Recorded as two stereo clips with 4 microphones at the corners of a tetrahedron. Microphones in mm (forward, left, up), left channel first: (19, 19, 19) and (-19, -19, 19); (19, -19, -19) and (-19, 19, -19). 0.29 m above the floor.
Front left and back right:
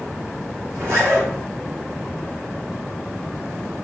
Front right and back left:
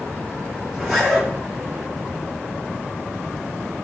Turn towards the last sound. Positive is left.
turn(degrees=-140)